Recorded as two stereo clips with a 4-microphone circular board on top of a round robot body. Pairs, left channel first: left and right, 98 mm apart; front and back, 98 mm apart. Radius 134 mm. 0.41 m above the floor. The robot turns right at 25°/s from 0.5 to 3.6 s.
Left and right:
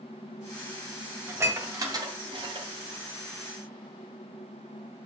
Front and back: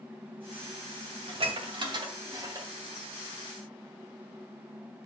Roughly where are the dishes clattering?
Behind right.